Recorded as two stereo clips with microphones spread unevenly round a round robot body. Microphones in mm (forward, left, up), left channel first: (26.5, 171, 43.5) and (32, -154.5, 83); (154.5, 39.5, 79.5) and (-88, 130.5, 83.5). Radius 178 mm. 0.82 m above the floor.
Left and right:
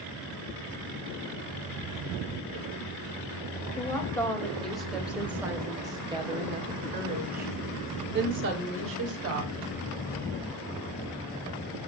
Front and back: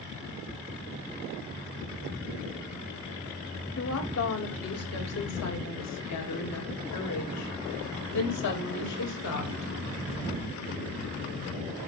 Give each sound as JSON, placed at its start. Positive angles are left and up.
{"t": 3.8, "sound": "a woman speaking", "azimuth_deg": 10, "distance_m": 5.0}